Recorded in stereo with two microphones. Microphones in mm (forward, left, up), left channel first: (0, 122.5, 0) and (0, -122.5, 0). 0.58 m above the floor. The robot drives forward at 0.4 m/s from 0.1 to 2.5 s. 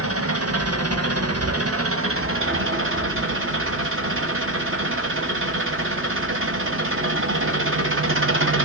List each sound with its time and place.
0.0 s an engine running: 70° right (ahead or behind), 1.0 m; by 8.7 s 55° right (ahead or behind), 1.2 m